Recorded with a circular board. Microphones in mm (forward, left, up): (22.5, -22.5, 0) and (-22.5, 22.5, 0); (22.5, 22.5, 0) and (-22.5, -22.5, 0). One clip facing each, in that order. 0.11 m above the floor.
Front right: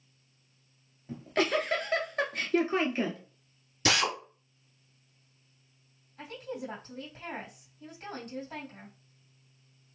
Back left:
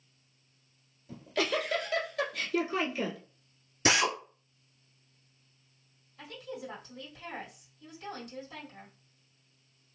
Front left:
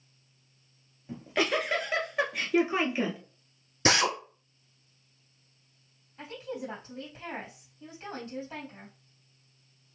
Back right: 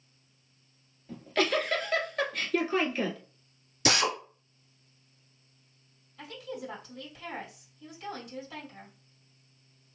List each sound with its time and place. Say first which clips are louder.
1.1 s a giggle: front right 3 dB, even; 25° right, 1.0 m
3.9 s a drill: back left 1 dB, front left 2 dB; 70° left, 1.6 m
6.2 s a woman speaking: front right 3 dB, front left 2 dB; 5° right, 3 m